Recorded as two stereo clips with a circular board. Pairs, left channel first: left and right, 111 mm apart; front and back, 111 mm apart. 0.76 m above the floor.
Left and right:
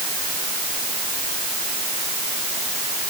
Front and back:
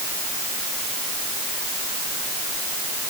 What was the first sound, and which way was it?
Only background noise.